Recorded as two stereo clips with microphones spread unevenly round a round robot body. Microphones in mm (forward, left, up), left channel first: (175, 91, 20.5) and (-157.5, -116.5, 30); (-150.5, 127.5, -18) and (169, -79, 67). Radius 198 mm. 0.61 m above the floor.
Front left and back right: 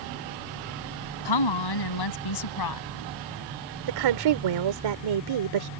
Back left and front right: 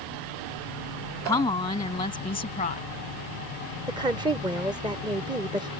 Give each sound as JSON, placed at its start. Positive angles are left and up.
{"t": 1.2, "sound": "a woman speaking", "azimuth_deg": 65}
{"t": 3.9, "sound": "a woman speaking", "azimuth_deg": -115}